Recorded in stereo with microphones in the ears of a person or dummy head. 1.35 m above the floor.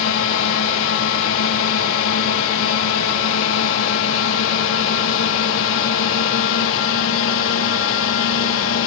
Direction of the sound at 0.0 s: 70° left (ahead or behind).